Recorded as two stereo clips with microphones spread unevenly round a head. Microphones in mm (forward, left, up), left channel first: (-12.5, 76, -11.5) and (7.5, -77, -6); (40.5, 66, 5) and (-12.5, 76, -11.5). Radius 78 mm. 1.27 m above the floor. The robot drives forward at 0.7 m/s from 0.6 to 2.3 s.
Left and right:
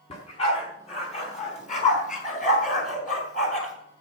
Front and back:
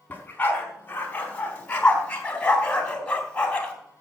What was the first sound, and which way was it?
A dog barking, 45° left.